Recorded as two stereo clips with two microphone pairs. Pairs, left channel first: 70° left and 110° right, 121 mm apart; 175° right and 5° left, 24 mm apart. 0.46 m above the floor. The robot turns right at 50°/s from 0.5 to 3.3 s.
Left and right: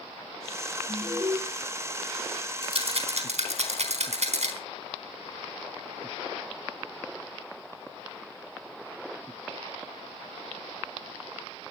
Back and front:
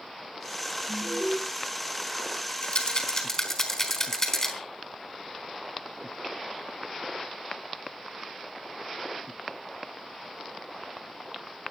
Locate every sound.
0.9 s an alarm: 65° right, 4.5 m; by 1.4 s 40° right, 4.5 m
2.6 s a rattle: 150° right, 4 m; by 4.5 s 115° right, 4 m